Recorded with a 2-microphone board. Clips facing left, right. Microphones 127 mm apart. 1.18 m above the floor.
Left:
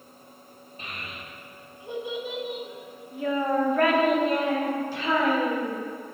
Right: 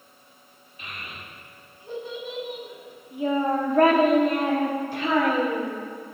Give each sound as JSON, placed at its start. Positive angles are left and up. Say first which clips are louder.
{"t": 0.8, "sound": "a child speaking", "louder": "even", "side_deg": 35, "distance_m": 1.6}